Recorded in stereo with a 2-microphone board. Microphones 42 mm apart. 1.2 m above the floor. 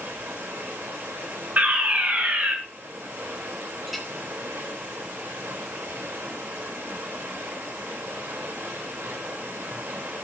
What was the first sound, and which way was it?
Running water, 85° right.